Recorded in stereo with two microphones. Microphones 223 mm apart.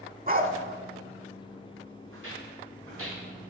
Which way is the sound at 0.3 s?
40° right (ahead or behind).